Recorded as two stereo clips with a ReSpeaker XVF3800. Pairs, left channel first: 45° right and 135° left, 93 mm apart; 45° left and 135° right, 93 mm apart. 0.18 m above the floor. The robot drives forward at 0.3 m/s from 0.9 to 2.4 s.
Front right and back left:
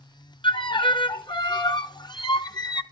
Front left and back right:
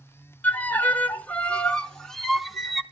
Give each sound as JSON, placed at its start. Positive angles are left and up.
{"t": 0.4, "sound": "a violin", "azimuth_deg": -25, "distance_m": 1.0}